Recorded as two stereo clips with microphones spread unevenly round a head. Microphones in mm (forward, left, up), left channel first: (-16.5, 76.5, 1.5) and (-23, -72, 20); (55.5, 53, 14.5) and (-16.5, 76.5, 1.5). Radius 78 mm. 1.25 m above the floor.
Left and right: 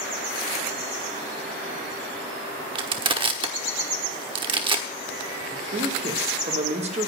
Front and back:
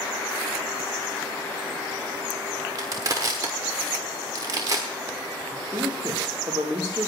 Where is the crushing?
135° right, 1.2 m.